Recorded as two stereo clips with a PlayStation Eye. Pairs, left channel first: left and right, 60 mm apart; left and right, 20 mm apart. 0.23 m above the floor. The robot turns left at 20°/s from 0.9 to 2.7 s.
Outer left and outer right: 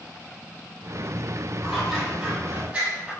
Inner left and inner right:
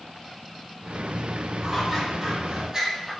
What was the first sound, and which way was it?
Scissors, centre (ahead or behind).